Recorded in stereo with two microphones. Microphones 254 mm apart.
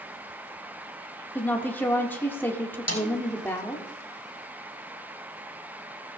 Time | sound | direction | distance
1.4 | a woman speaking | 10° left (ahead or behind) | 1.3 m
2.9 | a snare drum | 80° left | 3 m